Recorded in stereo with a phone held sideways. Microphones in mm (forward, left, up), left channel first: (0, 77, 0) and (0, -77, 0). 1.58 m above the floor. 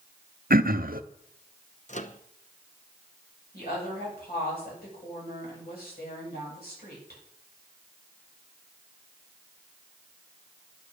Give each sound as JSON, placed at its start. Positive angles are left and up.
{"t": 0.5, "sound": "throat clearing", "side_deg": -70, "distance_m": 0.7}
{"t": 1.9, "sound": "a microwave", "side_deg": 50, "distance_m": 0.9}
{"t": 3.5, "sound": "a woman speaking", "side_deg": 85, "distance_m": 8.5}